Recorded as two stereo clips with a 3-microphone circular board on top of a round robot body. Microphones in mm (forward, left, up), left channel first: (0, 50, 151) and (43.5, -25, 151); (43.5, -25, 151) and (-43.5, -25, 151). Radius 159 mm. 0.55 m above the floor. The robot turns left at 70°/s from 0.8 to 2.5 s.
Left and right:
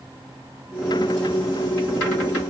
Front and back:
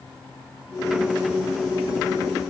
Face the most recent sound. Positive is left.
No sound to turn to.